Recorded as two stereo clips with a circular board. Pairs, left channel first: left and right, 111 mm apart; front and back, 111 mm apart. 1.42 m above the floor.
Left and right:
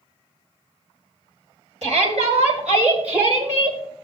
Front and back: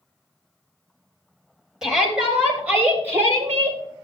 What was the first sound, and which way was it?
A shout, 95° right.